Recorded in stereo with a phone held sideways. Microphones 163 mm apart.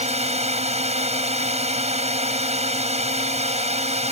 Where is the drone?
40° right (ahead or behind).